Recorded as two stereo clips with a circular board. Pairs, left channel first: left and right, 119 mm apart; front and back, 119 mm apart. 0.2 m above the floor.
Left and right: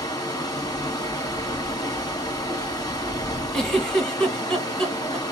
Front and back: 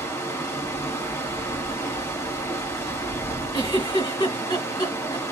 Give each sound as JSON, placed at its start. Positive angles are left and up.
{"t": 0.0, "sound": "running water", "azimuth_deg": 55, "distance_m": 1.0}
{"t": 3.5, "sound": "a giggle", "azimuth_deg": 10, "distance_m": 1.6}